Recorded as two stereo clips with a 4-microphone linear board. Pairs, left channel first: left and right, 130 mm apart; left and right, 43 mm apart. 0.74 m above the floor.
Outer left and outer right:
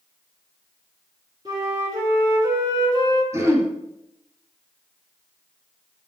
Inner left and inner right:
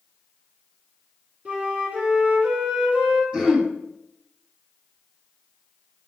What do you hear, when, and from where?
1.4 s a flute: 30° right (ahead or behind), 4 m
3.3 s throat clearing: 20° right (ahead or behind), 2.5 m